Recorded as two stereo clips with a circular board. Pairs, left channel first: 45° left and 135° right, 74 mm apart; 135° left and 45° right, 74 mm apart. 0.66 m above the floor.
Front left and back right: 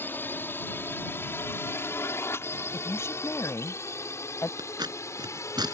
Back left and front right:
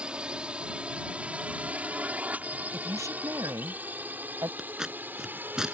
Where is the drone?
20° left; by 5.7 s 10° left.